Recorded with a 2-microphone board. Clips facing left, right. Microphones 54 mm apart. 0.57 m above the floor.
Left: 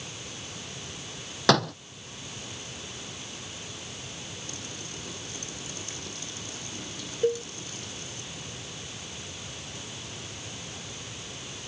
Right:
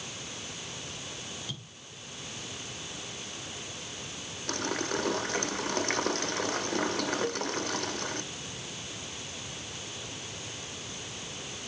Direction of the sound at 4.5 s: 60° right (ahead or behind).